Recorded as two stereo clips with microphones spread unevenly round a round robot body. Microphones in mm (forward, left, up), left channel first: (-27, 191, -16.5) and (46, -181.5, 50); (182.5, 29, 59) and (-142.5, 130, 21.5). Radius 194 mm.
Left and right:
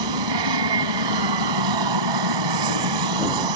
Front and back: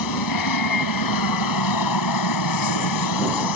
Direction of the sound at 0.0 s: 55° right.